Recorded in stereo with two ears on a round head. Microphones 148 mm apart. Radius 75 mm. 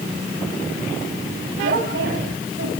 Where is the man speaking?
75° right (ahead or behind), 8.5 m.